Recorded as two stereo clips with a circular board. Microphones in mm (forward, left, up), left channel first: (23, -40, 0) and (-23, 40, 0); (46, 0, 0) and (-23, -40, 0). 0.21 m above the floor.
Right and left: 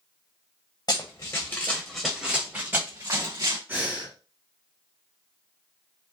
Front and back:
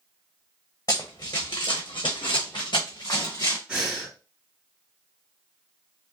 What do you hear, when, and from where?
0.9 s running footsteps: 15° right, 1.3 m; by 3.6 s 75° left, 1.7 m
3.7 s breathing: 145° left, 1.7 m